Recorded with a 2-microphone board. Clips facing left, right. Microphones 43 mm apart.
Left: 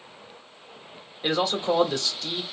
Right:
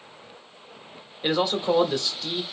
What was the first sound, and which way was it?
A man speaking, 5° right (ahead or behind).